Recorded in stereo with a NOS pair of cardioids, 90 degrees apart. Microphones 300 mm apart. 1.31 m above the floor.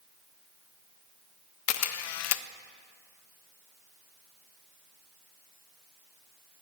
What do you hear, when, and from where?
1.7 s a camera shutter: 60° left, 0.5 m